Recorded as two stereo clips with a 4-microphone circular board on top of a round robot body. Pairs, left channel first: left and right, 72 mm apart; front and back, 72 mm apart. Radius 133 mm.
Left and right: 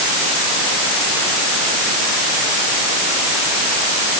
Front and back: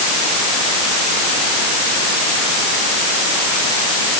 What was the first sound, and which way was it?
Only background noise.